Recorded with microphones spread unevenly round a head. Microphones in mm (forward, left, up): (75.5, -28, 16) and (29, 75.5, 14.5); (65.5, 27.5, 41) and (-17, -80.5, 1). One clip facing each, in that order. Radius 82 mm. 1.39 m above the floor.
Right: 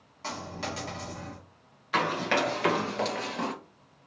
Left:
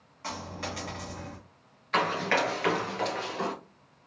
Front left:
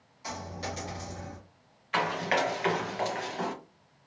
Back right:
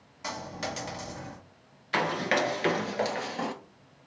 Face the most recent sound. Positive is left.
turn(degrees=-65)